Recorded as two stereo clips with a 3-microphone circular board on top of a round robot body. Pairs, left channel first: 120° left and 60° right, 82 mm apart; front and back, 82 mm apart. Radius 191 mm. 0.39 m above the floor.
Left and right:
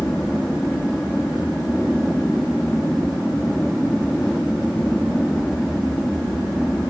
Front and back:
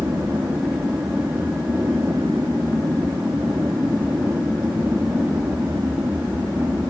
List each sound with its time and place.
0.0 s an aircraft: 155° right